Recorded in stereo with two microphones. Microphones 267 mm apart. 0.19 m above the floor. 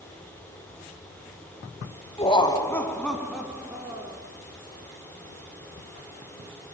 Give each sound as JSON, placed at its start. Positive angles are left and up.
{"t": 2.2, "sound": "laughter", "side_deg": 20, "distance_m": 1.2}